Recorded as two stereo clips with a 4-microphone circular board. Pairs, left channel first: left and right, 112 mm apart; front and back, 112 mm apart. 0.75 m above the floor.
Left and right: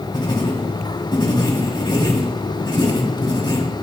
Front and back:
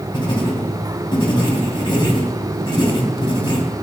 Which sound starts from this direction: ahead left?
Writing, at 0.1 s.